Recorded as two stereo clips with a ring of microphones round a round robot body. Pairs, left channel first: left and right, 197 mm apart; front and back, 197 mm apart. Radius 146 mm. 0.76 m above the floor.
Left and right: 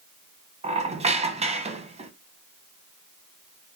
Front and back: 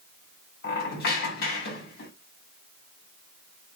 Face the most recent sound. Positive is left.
turn(degrees=-35)